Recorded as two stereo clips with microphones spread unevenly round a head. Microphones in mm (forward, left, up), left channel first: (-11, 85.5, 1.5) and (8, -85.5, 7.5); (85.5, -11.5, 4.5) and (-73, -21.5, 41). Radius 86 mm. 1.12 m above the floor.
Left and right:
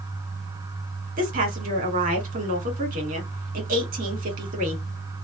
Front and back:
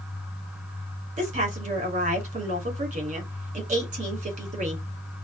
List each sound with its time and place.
1.2 s a woman speaking: 130° right, 2.0 m